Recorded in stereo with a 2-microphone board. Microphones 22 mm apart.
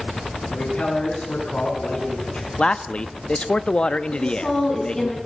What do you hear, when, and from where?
0.5 s a man speaking: 65° left (ahead or behind), 9 m
2.6 s a man speaking: 45° left (ahead or behind), 0.9 m
4.1 s a woman speaking: 20° left (ahead or behind), 7 m